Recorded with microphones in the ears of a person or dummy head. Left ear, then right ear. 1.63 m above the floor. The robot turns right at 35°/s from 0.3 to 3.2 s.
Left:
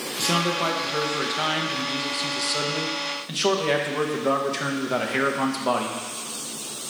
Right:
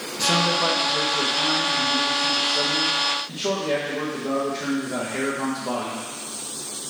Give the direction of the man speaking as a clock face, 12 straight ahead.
12 o'clock.